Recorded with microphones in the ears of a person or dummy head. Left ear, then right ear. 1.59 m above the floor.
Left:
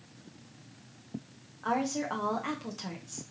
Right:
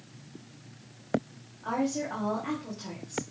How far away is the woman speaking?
About 1.3 m.